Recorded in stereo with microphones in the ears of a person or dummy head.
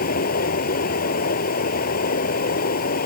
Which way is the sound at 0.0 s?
55° left (ahead or behind).